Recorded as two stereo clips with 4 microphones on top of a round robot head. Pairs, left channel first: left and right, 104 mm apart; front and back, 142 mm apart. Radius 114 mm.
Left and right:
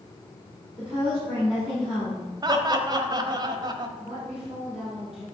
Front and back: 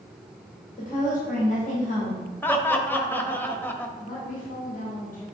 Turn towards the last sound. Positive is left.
turn(degrees=-5)